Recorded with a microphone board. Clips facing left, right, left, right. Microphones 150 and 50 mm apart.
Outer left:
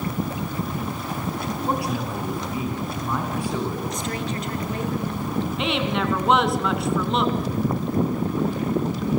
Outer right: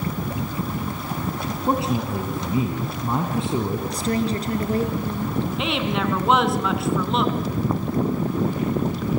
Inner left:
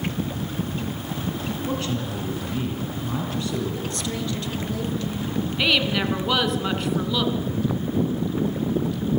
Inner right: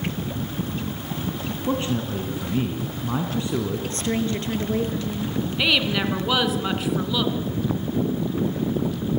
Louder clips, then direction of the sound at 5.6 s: Outer left 1 dB, even; centre (ahead or behind).